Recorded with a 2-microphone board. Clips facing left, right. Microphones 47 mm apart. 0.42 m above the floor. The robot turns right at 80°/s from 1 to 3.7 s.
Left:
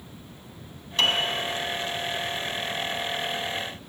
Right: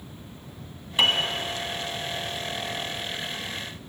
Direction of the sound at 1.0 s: 15° right (ahead or behind).